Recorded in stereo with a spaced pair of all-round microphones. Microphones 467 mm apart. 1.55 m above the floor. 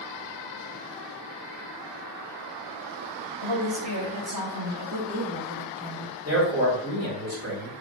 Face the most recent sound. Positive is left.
turn(degrees=-30)  # may be behind; listen again after turning